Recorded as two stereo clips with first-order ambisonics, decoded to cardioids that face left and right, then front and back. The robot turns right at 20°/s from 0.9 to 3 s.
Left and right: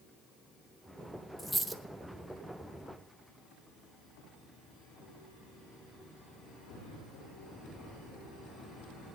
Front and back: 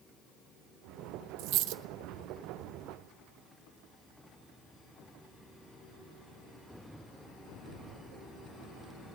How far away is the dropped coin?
About 0.9 m.